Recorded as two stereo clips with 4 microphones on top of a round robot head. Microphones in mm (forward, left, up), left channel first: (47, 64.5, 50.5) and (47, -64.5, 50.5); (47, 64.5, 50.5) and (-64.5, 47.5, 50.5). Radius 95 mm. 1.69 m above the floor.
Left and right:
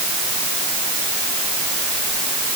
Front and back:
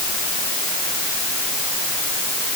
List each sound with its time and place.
Only background noise.